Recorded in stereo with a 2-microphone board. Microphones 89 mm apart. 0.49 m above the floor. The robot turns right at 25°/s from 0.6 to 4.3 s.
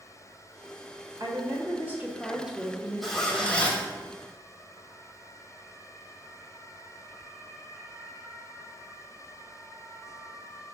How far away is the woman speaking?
About 1.6 m.